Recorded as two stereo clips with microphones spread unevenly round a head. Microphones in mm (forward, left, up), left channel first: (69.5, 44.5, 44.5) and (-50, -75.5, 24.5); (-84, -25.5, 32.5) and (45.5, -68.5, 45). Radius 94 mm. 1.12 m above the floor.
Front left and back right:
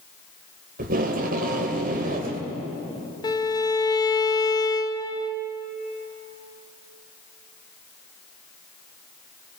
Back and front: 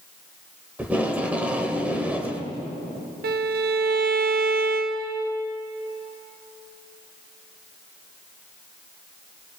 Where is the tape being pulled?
95° right, 1.8 m.